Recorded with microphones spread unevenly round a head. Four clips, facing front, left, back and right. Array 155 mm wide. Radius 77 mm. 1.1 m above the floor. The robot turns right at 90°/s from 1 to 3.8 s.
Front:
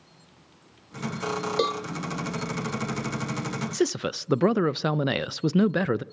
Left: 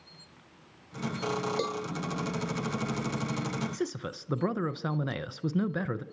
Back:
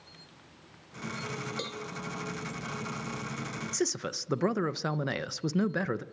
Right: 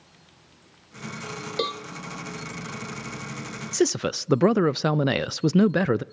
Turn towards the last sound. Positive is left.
turn(degrees=-70)